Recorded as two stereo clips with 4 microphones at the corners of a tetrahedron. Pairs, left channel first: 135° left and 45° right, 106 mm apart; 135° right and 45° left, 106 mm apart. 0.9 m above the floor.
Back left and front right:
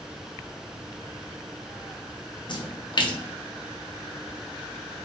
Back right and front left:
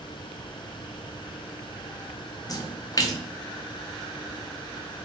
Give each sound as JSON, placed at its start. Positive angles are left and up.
{"t": 2.5, "sound": "a splash", "azimuth_deg": 175, "distance_m": 0.5}